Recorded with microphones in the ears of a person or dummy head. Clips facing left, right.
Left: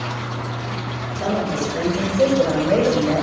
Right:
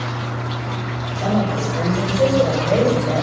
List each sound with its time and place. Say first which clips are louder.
1.1 s a woman speaking: right 2 dB; 20° left (ahead or behind), 7.5 m; by 3.2 s 10° left (ahead or behind), 6.5 m